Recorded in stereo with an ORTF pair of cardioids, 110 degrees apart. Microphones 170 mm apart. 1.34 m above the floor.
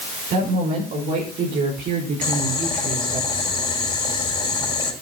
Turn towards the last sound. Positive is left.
turn(degrees=30)